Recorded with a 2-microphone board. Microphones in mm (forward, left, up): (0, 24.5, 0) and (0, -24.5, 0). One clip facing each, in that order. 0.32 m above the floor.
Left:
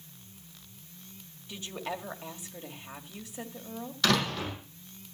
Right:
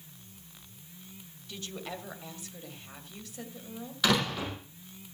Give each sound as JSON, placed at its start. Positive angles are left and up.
{"t": 1.5, "sound": "a woman speaking", "side_deg": 20, "distance_m": 1.9}
{"t": 4.0, "sound": "a door slam", "side_deg": -10, "distance_m": 8.5}